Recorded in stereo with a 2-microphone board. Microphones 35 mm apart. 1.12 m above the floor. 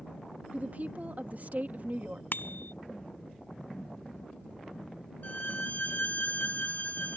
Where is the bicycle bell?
70° left (ahead or behind).